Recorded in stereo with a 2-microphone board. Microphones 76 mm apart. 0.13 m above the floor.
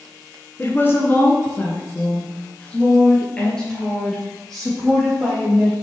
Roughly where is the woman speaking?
Left.